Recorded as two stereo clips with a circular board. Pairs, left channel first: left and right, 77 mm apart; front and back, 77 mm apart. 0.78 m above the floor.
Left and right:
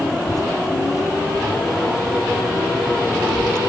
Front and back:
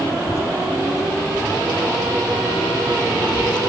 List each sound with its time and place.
0.2 s a child speaking: 50° left; by 3.6 s 5° left